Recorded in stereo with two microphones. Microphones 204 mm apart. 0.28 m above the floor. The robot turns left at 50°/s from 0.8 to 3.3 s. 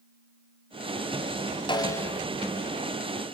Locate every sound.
1.7 s a snare drum: 20° left (ahead or behind), 1.7 m; by 2.2 s 5° left (ahead or behind), 1.7 m